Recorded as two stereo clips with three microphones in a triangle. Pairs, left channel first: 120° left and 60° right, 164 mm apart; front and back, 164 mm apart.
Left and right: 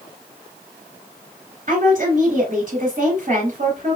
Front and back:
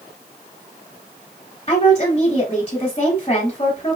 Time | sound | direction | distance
1.7 | a woman speaking | 45° right | 1.7 m